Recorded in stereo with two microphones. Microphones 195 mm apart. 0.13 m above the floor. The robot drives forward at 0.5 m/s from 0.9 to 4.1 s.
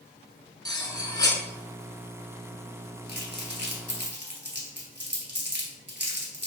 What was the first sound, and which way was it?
Cutlery clinking, 20° left (ahead or behind).